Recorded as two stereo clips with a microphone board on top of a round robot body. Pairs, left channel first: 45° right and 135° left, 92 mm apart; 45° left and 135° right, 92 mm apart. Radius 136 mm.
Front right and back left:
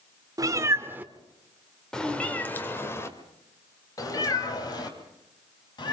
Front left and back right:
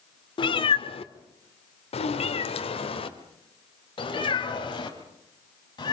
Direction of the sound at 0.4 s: 80° left.